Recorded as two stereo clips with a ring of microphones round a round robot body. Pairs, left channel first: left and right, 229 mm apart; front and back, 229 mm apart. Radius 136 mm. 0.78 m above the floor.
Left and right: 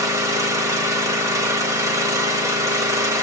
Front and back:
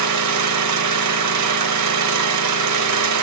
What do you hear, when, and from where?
0.0 s an engine running: 170° right, 1.4 m